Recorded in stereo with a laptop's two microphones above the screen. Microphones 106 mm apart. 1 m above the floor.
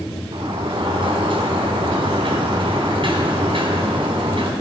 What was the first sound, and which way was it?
A sliding door, 55° right (ahead or behind).